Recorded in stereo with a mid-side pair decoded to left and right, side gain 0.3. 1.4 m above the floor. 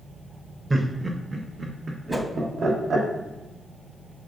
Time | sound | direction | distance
0.7 | laughter | 20° right | 0.7 m
2.1 | a whoosh | 15° right | 0.8 m